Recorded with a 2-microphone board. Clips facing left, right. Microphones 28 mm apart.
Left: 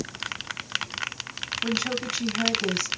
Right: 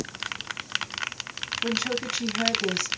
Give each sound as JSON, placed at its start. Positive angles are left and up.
{"t": 1.6, "sound": "a woman speaking", "side_deg": 0, "distance_m": 1.4}